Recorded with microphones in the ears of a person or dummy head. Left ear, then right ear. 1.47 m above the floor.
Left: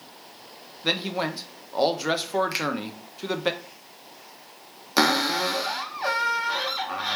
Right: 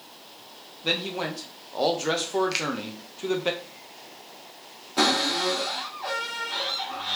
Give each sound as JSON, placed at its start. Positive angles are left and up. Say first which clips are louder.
{"t": 0.8, "sound": "a man speaking", "louder": "left 1 dB", "side_deg": 30, "distance_m": 0.6}
{"t": 2.5, "sound": "a finger snap", "louder": "even", "side_deg": 20, "distance_m": 0.6}
{"t": 5.0, "sound": "a cupboard door", "louder": "left 1 dB", "side_deg": 50, "distance_m": 0.7}